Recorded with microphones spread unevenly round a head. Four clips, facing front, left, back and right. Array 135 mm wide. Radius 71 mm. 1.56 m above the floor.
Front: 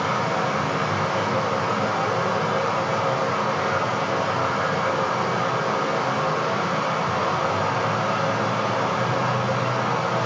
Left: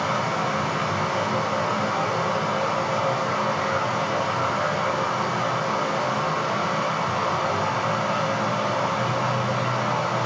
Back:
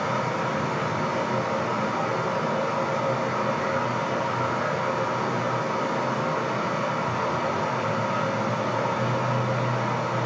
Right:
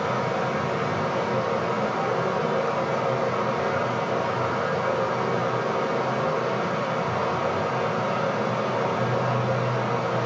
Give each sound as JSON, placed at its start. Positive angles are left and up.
{"t": 0.0, "sound": "running water", "azimuth_deg": 30, "distance_m": 1.9}